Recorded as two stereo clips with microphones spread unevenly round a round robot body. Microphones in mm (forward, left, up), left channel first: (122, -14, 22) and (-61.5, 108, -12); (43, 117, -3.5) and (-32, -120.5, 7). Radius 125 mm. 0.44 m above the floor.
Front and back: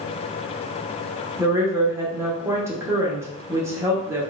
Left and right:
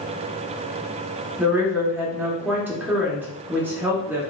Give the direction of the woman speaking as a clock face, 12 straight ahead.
6 o'clock.